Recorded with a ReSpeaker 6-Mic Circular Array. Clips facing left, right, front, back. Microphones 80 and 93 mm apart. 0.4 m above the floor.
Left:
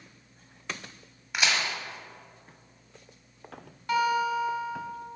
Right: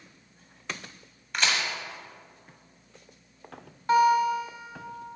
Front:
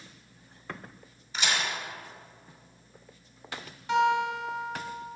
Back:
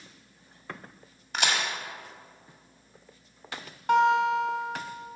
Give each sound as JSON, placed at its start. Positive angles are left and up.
{"t": 1.3, "sound": "a crack", "azimuth_deg": 170, "distance_m": 1.5}
{"t": 3.9, "sound": "a guitar", "azimuth_deg": -150, "distance_m": 1.0}